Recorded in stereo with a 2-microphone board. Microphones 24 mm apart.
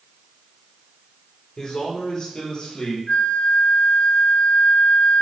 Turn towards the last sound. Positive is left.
turn(degrees=50)  # may be behind; listen again after turning